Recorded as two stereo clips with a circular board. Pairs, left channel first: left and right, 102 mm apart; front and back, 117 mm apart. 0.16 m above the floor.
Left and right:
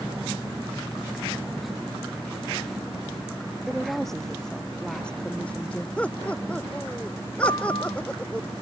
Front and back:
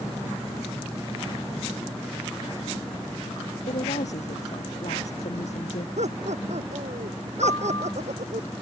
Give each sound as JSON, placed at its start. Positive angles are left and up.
{"t": 3.7, "sound": "a woman speaking", "azimuth_deg": 0}
{"t": 6.0, "sound": "laughter", "azimuth_deg": 170}
{"t": 7.4, "sound": "a piano", "azimuth_deg": 55}